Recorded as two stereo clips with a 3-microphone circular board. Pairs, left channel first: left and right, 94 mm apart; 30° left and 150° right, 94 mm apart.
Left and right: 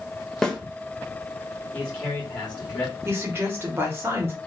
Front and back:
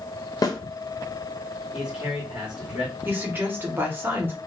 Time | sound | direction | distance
0.4 | a snare drum | 10° left | 0.6 m
1.7 | a man speaking | 150° left | 1.3 m
3.0 | a woman speaking | 110° right | 0.9 m